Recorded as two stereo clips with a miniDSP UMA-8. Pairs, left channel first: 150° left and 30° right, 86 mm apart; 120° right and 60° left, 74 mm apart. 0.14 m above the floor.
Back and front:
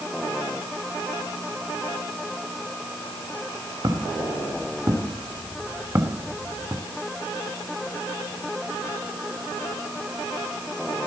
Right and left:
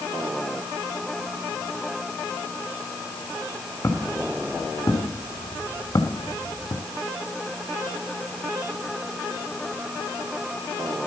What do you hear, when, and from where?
3.8 s footsteps: 65° right, 3 m; by 6.8 s 95° right, 1.7 m